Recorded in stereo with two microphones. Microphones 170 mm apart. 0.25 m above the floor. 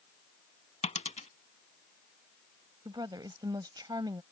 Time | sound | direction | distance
0.8 | a dropped coin | 40° left (ahead or behind) | ?
2.9 | a woman speaking | 25° right (ahead or behind) | ?